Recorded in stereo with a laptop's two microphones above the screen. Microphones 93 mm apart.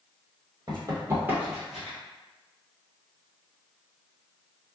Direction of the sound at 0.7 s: 50° right (ahead or behind).